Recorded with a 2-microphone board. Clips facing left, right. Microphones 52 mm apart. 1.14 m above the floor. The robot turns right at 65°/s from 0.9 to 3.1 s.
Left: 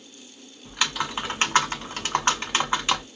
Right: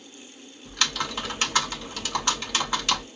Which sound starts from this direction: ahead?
Typing on a keyboard, at 0.7 s.